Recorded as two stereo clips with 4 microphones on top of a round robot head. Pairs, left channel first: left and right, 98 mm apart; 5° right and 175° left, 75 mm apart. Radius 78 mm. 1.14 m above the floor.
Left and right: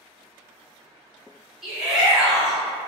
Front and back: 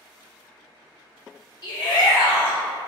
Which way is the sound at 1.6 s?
5° right.